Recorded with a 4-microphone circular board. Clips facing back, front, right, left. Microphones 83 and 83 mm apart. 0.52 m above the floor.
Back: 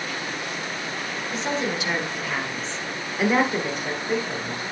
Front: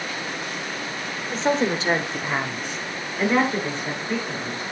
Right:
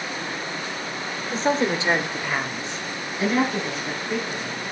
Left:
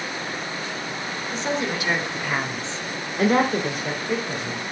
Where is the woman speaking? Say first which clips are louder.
Front 5 dB, right 5 dB; 50° right, 1.7 m; by 4.6 s 110° left, 3 m.